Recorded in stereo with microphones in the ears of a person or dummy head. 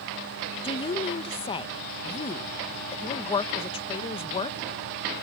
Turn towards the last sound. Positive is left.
turn(degrees=25)  # may be behind; listen again after turning